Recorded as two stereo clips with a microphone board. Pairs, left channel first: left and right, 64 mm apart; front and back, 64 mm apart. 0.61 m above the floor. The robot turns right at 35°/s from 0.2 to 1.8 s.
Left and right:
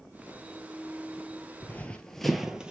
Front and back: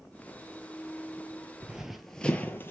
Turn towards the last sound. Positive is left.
turn(degrees=-25)